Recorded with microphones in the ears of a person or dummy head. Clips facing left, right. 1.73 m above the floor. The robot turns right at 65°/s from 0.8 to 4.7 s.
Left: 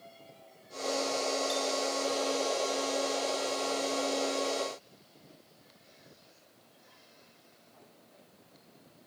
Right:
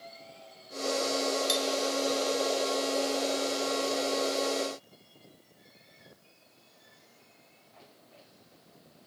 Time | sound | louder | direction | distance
1.5 | cutlery clinking | right 2 dB | 70° right (ahead or behind) | 5 m